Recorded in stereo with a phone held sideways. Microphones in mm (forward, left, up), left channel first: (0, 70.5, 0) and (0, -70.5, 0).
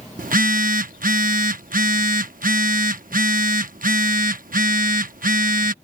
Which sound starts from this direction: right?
A phone buzzing, at 0.2 s.